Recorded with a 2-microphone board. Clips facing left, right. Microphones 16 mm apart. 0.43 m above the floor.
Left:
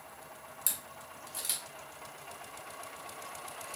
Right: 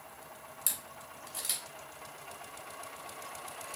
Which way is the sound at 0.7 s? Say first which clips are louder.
Even; 5° right (ahead or behind).